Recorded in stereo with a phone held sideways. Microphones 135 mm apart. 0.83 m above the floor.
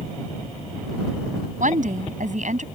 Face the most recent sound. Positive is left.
turn(degrees=-70)  # may be behind; listen again after turning